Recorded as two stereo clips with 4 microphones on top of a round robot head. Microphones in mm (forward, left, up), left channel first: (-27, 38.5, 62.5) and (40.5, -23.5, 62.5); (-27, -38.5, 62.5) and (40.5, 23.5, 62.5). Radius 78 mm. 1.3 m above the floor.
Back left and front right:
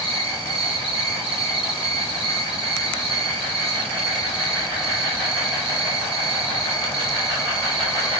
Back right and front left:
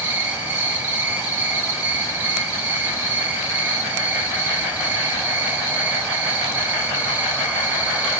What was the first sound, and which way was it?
An insect, 25° right.